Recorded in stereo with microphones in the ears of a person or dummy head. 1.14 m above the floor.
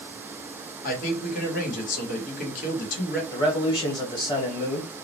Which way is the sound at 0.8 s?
50° left (ahead or behind).